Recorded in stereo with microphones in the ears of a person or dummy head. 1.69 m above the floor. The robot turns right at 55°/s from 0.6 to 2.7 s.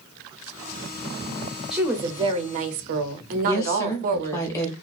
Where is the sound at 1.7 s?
175° right, 0.6 m; by 4.5 s 120° right, 0.6 m.